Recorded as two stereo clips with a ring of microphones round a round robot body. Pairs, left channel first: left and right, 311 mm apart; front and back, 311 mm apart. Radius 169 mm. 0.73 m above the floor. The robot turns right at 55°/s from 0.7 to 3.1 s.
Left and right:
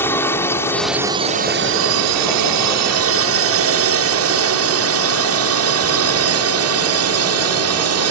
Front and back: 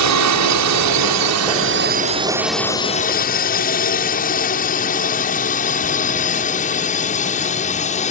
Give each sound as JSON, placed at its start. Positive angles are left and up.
{"t": 0.0, "sound": "a drone", "azimuth_deg": 170}